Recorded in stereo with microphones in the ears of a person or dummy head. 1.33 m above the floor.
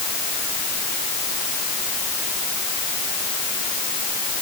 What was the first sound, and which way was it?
Only background noise.